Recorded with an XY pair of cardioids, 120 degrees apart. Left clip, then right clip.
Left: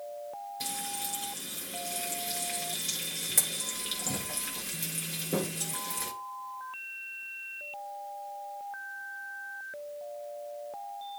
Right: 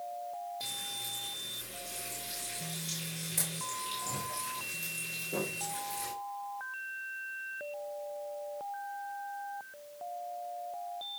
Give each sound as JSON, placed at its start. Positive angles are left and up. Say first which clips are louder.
{"t": 0.6, "sound": "frying", "louder": "left 2 dB", "azimuth_deg": 55, "distance_m": 4.5}